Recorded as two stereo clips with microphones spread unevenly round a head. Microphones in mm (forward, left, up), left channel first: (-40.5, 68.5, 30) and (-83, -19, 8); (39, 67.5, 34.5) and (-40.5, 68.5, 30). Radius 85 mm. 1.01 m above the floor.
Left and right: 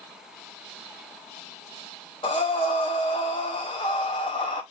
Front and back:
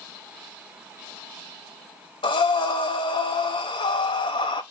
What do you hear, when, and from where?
2.2 s breathing: 10° left, 0.6 m